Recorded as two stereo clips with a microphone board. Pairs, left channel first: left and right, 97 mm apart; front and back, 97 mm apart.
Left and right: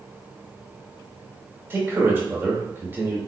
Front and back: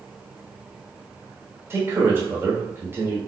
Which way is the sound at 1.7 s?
140° right.